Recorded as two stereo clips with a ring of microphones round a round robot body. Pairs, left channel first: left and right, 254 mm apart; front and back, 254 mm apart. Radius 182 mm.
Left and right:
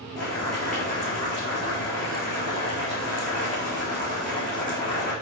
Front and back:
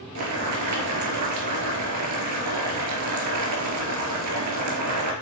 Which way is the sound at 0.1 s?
175° left.